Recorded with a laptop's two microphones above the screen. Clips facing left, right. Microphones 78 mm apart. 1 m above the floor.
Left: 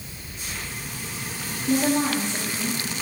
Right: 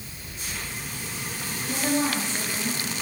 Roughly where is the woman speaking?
Left.